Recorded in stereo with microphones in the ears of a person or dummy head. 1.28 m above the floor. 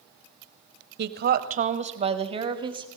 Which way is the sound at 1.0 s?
45° right (ahead or behind).